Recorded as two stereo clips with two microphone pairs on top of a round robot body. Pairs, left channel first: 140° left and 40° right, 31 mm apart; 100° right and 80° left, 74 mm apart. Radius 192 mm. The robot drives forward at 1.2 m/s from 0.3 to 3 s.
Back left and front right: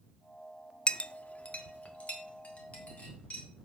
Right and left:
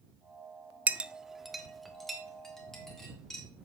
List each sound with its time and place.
0.9 s a clink: 135° left, 0.7 m; by 3.4 s 175° left, 3 m